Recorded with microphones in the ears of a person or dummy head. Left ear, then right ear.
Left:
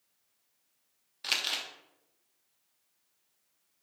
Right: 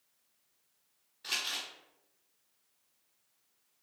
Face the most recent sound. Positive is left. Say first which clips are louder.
# left 4 dB
turn(degrees=50)  # may be behind; listen again after turning